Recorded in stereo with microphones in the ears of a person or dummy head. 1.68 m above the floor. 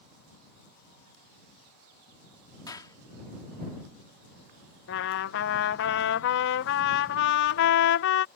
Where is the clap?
25° left (ahead or behind).